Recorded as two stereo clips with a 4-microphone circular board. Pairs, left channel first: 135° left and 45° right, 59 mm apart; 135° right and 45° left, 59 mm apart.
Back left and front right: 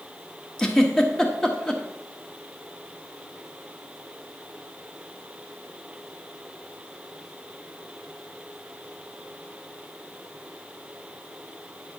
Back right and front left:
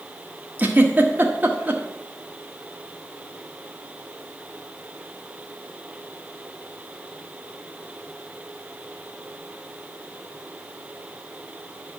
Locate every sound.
0.6 s a giggle: 60° left, 1.3 m